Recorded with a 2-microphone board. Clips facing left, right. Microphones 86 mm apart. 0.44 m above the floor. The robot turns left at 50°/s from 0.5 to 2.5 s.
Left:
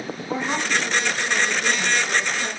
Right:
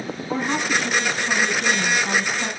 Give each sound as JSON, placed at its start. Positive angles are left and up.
{"t": 0.3, "sound": "a woman speaking", "azimuth_deg": 0, "distance_m": 4.0}